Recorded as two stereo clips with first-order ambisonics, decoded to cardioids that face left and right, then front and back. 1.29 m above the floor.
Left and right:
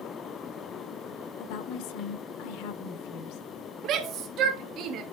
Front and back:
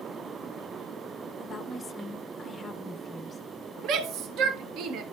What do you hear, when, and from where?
1.4 s a woman speaking: 75° left, 0.8 m
3.8 s a shout: 140° right, 0.7 m